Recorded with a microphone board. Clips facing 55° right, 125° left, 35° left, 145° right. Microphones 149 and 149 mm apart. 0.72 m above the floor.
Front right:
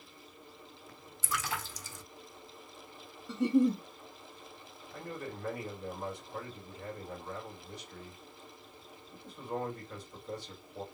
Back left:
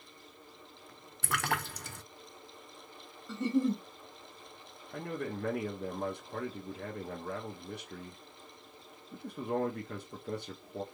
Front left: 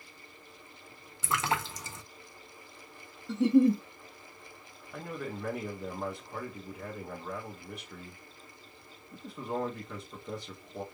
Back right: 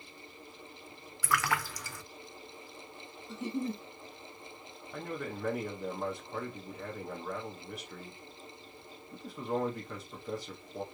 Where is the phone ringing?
No phone ringing in this recording.